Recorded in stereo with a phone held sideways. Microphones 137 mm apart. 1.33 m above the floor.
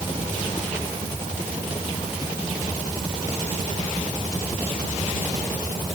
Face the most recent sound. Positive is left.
No sound to turn to.